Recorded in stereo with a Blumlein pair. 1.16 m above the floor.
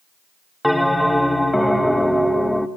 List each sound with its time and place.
0.6 s a bell: straight ahead, 0.9 m